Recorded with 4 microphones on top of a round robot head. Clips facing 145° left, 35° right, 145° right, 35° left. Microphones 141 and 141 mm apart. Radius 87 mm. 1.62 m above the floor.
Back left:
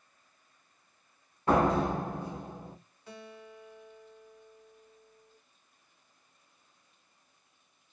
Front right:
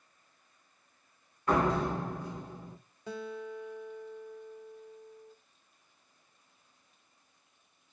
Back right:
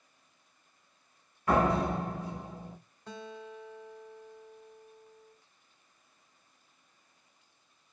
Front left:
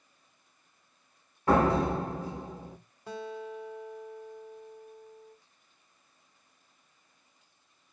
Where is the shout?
No shout in this recording.